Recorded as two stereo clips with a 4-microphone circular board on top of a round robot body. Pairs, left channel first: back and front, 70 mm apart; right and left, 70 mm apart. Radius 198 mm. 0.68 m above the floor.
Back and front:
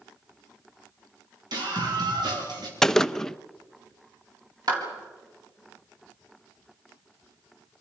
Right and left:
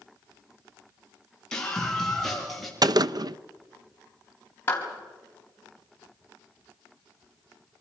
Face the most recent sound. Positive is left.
turn(degrees=-30)